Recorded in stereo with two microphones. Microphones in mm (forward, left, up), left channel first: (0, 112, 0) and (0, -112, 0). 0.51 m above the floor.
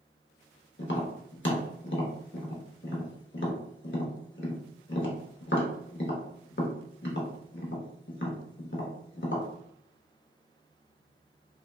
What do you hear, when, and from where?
0.8 s tapping: 55° left (ahead or behind), 0.7 m